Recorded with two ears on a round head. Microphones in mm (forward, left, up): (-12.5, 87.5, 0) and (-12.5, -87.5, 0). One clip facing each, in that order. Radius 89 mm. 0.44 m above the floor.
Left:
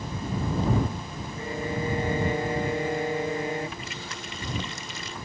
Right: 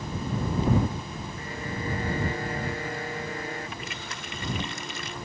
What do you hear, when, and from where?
1.4 s a violin: 20° left (ahead or behind)
3.8 s a running tap: 45° right (ahead or behind)